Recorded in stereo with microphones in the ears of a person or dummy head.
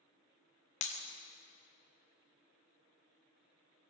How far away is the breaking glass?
About 1.1 m.